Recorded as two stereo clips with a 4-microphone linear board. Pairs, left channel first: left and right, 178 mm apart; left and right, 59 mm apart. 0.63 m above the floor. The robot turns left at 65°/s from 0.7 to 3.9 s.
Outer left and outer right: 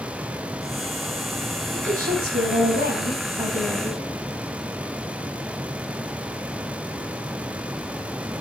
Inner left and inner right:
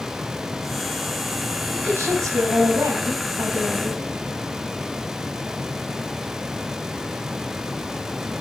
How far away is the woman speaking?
About 4 m.